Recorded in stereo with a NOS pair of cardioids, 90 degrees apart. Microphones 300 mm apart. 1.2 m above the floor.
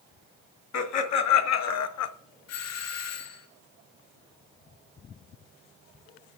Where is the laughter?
70° left, 1.6 m; by 2.1 s 60° left, 0.7 m.